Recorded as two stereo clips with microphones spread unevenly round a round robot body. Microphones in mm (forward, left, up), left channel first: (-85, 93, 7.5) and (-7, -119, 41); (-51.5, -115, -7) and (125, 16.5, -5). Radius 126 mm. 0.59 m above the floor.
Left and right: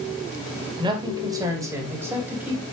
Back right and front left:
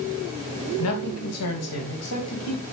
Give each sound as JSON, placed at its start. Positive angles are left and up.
{"t": 0.8, "sound": "a man speaking", "azimuth_deg": -140, "distance_m": 3.0}